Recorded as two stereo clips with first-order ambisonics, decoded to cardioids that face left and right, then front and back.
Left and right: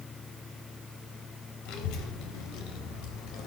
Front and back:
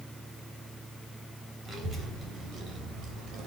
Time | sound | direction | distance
1.6 | a child speaking | 105° left | 3.5 m